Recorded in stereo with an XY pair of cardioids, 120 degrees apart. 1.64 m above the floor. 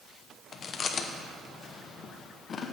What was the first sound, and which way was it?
Chewing, 40° left.